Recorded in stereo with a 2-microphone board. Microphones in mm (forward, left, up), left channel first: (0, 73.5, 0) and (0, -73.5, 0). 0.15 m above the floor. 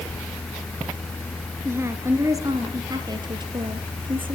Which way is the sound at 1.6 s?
15° right (ahead or behind).